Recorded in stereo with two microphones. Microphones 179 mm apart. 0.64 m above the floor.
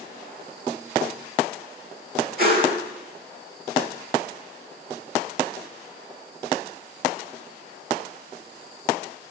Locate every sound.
2.4 s a whoosh: 60° right (ahead or behind), 2.5 m